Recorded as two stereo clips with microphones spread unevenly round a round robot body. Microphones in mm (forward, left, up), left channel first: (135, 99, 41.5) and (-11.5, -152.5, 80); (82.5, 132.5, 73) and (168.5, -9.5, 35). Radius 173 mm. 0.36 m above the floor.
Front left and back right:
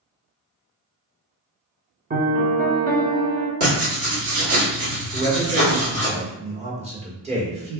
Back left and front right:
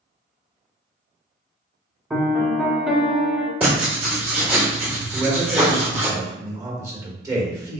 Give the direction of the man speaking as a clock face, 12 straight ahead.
2 o'clock.